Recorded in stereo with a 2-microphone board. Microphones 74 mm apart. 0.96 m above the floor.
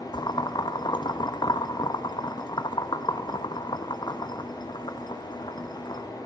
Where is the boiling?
70° left (ahead or behind), 1.0 m.